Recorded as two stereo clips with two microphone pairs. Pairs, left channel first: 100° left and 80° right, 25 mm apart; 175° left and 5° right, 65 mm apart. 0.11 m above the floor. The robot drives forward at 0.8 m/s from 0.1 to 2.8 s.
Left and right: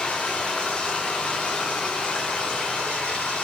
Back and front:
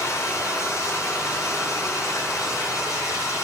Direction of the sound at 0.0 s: 145° left.